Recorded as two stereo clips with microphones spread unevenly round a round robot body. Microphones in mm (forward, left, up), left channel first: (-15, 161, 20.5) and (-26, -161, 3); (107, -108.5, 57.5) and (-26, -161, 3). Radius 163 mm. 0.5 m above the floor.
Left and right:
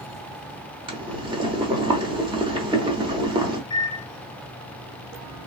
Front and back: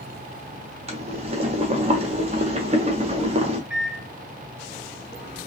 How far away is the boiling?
About 1.0 m.